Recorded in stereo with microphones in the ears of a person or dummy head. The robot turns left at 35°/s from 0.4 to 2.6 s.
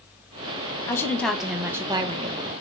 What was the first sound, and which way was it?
A woman speaking, 20° left.